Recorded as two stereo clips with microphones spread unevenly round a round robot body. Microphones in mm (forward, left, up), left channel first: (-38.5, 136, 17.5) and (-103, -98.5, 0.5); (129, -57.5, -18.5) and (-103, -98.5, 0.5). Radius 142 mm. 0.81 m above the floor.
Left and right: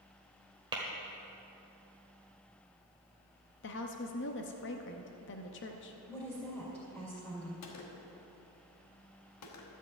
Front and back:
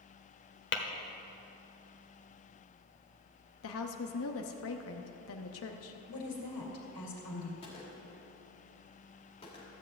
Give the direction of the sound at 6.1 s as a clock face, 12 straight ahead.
12 o'clock.